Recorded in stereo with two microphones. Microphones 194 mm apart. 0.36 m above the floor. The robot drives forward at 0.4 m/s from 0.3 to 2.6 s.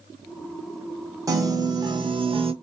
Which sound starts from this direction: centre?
A piano, at 1.3 s.